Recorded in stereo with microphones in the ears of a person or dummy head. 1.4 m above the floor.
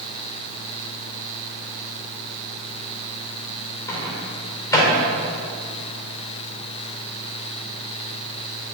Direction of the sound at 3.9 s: 25° left (ahead or behind).